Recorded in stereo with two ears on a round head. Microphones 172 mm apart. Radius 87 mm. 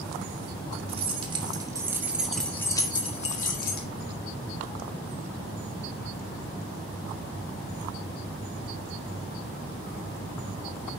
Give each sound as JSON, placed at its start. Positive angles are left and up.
{"t": 0.9, "sound": "keys jangling", "side_deg": -30, "distance_m": 3.5}